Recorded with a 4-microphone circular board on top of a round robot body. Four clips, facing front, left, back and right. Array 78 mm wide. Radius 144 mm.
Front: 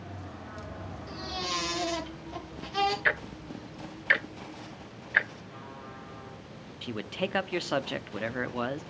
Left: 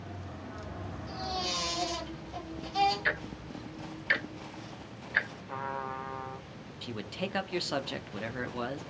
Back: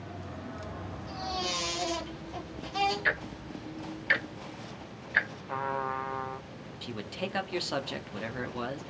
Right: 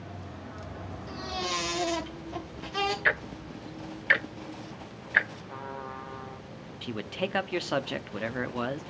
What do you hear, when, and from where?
1.1 s a baby crying: 60° right, 3 m
3.0 s ticking: 65° right, 0.8 m
5.5 s a trumpet: 165° left, 0.7 m
6.8 s a man speaking: 50° right, 0.9 m